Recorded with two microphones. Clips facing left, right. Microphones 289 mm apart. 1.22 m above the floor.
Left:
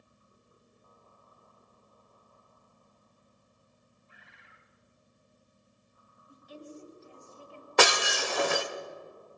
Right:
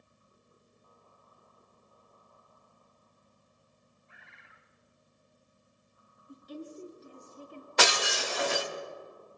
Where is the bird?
40° left (ahead or behind), 3 m.